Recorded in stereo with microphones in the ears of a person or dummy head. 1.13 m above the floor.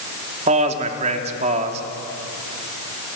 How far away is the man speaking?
About 3 m.